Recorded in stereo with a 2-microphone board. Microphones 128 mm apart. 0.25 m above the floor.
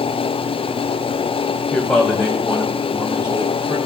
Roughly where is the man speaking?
Centre.